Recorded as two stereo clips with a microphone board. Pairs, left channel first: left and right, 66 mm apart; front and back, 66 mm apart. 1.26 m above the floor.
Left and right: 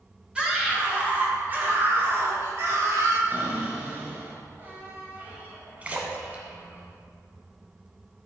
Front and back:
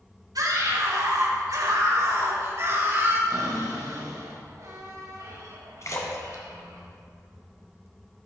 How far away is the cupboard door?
About 3 m.